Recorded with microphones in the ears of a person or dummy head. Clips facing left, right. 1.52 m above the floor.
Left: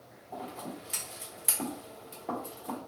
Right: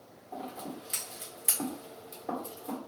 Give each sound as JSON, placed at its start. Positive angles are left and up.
{"t": 0.3, "sound": "scissors", "side_deg": 0, "distance_m": 1.0}